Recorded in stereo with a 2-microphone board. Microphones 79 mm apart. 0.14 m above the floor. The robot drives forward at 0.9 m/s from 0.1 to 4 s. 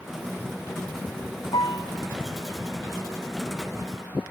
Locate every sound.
1.5 s a piano: 75° left (ahead or behind), 0.6 m; by 1.9 s 60° left (ahead or behind), 0.7 m